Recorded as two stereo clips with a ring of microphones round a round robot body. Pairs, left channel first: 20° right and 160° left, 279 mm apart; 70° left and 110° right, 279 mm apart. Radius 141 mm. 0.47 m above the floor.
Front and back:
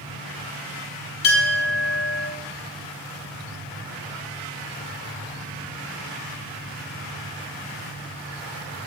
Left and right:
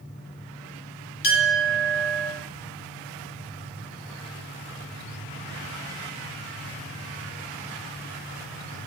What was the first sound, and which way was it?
A clink, 25° left.